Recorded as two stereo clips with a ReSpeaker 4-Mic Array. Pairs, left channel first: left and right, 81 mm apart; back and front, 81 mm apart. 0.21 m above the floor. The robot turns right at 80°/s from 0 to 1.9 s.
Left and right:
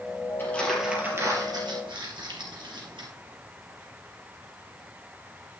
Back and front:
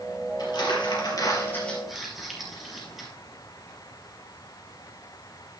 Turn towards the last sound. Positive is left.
turn(degrees=-90)